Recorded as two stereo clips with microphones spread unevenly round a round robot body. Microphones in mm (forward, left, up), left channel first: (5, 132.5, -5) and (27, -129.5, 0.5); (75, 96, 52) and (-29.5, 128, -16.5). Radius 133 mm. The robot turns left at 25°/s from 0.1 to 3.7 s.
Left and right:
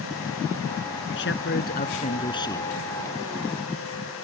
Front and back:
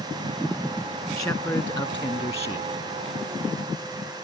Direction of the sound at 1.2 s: 55° left.